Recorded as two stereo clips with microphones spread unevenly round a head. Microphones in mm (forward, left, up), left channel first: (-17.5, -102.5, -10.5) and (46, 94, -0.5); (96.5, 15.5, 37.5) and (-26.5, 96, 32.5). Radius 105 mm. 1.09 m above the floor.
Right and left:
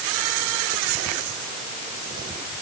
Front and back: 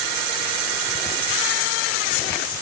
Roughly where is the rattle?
No rattle in this recording.